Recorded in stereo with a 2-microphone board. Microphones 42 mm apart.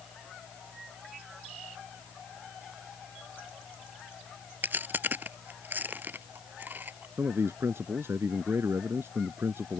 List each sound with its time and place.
4.6 s chewing: 50° right (ahead or behind)
7.2 s a man speaking: 75° right (ahead or behind)